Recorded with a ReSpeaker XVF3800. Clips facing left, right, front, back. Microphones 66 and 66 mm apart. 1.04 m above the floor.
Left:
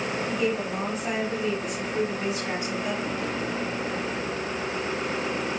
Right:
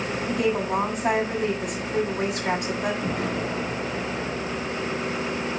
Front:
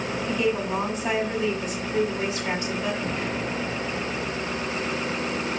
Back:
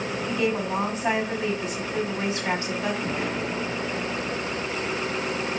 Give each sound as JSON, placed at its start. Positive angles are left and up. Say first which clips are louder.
{"t": 0.3, "sound": "a woman speaking", "louder": "right 5 dB, front 1 dB", "azimuth_deg": -120, "distance_m": 6.5}
{"t": 3.0, "sound": "an explosion", "louder": "right 2 dB, even", "azimuth_deg": -105, "distance_m": 6.0}